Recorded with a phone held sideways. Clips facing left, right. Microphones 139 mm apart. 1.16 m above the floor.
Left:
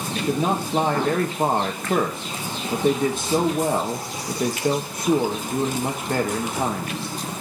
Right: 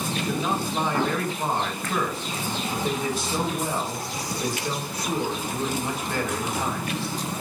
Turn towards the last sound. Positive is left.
turn(degrees=50)  # may be behind; listen again after turning